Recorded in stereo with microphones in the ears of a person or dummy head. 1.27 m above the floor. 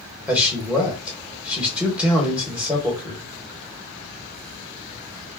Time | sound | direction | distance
0.3 | a man speaking | 5° right (ahead or behind) | 1.0 m